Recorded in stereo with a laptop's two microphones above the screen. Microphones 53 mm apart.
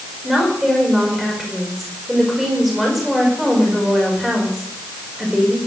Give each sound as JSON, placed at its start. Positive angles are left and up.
{"t": 0.2, "sound": "a woman speaking", "side_deg": 0, "distance_m": 4.5}